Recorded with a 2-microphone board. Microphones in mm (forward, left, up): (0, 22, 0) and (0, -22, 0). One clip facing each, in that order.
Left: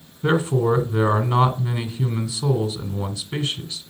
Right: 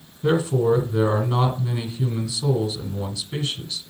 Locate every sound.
0.2 s a man speaking: 40° left (ahead or behind), 2.5 m